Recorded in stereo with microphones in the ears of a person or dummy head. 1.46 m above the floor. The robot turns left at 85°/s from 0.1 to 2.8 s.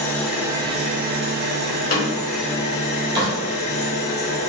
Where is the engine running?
10° left, 0.8 m; by 4.5 s 140° left, 0.8 m.